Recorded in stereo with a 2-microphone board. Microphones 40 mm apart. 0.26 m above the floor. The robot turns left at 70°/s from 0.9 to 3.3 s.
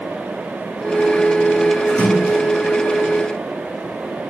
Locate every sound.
1.9 s a splash: 45° left, 2.5 m; by 2.4 s 10° left, 2.5 m